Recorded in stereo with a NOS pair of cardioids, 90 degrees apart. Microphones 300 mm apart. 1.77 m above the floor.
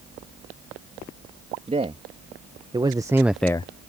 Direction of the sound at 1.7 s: 20° right.